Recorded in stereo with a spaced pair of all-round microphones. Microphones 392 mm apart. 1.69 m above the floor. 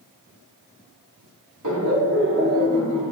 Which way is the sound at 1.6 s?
50° right (ahead or behind).